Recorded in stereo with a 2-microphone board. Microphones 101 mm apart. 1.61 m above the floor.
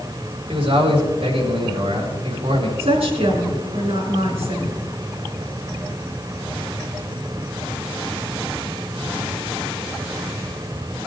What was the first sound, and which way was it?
A man speaking, 65° right (ahead or behind).